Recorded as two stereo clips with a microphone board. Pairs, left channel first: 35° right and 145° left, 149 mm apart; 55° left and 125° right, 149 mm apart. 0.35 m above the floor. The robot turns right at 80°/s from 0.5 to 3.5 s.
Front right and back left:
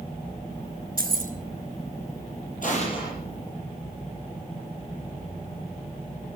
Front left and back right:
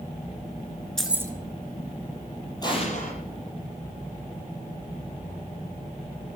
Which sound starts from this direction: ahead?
An explosion, at 2.6 s.